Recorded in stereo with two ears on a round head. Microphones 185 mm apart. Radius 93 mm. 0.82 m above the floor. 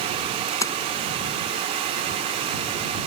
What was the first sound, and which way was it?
A splash, 15° left (ahead or behind).